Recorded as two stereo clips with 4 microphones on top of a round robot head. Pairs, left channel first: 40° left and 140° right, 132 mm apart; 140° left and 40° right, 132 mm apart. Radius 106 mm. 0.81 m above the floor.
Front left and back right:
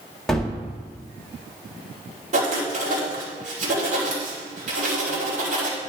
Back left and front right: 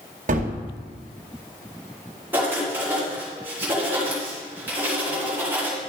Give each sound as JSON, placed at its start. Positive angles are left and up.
{"t": 0.3, "sound": "a gunshot", "azimuth_deg": -45, "distance_m": 1.7}
{"t": 2.3, "sound": "writing", "azimuth_deg": -115, "distance_m": 3.0}